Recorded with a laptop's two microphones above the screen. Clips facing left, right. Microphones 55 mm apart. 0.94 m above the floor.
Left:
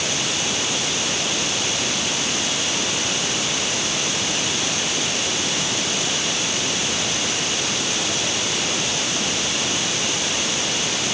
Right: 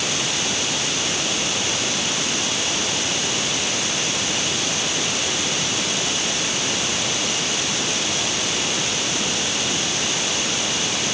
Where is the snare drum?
No snare drum in this recording.